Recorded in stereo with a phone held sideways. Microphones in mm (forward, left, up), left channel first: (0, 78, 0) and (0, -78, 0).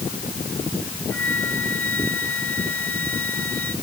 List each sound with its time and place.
1.1 s a flute: 10° left (ahead or behind)